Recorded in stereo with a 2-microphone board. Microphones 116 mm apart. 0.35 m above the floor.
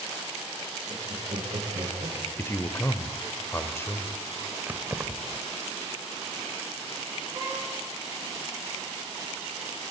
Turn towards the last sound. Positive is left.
turn(degrees=-35)  # may be behind; listen again after turning